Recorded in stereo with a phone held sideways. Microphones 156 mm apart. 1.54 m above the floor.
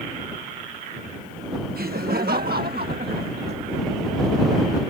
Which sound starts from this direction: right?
Laughter, at 1.8 s.